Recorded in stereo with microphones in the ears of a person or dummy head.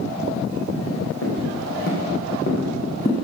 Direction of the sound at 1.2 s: 60° left (ahead or behind).